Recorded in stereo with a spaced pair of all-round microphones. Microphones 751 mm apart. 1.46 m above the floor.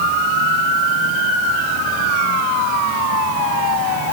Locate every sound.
Only background noise.